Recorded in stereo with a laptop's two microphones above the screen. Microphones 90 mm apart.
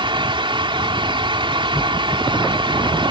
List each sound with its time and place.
0.0 s a fan: 65° right (ahead or behind)